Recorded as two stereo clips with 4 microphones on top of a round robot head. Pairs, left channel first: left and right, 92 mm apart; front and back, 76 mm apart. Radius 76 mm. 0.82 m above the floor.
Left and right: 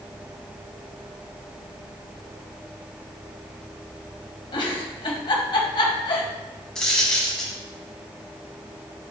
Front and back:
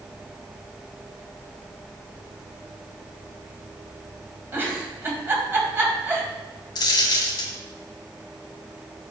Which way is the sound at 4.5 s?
120° left.